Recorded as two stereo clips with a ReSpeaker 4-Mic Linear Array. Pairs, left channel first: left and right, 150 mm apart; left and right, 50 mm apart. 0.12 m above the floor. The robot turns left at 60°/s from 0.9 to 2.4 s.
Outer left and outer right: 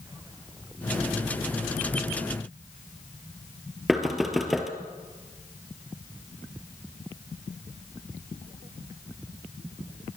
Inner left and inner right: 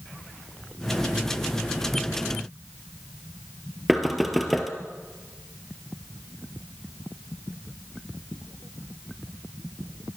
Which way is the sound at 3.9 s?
Centre (ahead or behind).